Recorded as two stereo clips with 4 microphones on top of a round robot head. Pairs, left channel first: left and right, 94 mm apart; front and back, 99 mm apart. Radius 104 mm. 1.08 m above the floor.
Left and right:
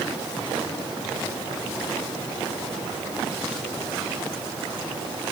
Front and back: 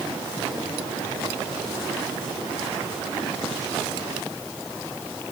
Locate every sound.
Only background noise.